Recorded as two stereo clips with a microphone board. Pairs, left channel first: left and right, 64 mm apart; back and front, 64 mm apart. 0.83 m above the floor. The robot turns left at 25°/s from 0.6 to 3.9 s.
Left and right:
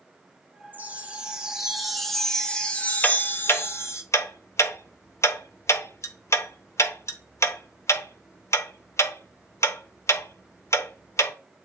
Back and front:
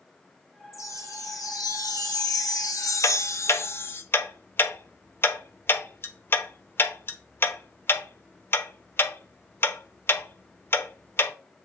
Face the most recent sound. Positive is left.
turn(degrees=130)